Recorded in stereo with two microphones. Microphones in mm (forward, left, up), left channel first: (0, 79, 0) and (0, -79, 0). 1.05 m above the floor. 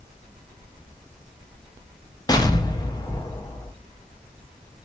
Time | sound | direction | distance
2.3 | an explosion | 25° left (ahead or behind) | 0.5 m